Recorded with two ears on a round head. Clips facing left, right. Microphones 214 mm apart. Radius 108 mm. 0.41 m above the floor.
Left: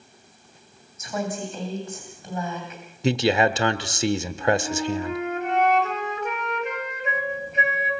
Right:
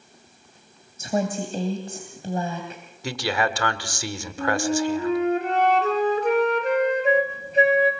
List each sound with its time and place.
1.0 s a woman speaking: 30° right (ahead or behind), 3 m
3.0 s a man speaking: 20° left (ahead or behind), 1.0 m
4.4 s a flute: 30° right (ahead or behind), 2.5 m